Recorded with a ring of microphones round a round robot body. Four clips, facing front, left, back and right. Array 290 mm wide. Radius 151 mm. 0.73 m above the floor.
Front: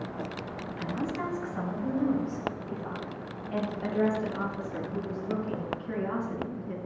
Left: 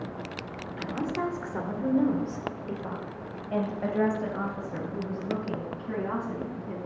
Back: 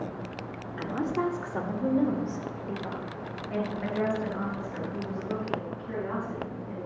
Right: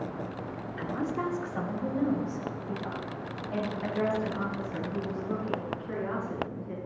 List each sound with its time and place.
0.8 s a woman speaking: 160° left, 2.5 m; by 6.8 s 85° left, 7 m